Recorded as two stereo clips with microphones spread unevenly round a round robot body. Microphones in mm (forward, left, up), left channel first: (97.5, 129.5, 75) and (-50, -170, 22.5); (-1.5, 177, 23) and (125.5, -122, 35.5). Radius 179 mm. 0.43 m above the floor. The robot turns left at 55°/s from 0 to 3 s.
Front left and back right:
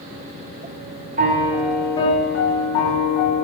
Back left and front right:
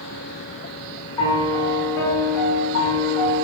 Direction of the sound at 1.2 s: 170° right.